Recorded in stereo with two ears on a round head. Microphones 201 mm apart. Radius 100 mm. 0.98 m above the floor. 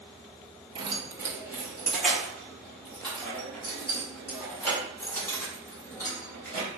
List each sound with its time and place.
0.8 s keys jangling: 25° right (ahead or behind), 0.6 m; by 6.7 s 10° left (ahead or behind), 4 m